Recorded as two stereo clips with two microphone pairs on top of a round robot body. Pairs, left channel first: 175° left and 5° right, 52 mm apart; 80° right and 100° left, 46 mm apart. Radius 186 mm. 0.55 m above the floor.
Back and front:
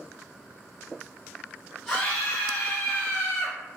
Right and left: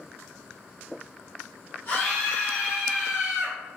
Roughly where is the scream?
Right.